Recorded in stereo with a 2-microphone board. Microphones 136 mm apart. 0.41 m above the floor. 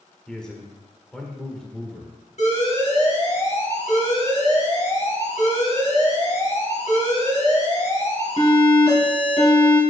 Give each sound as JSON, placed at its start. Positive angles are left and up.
{"t": 0.3, "sound": "a man speaking", "side_deg": 5, "distance_m": 1.5}
{"t": 2.4, "sound": "an alarm", "side_deg": 60, "distance_m": 3.5}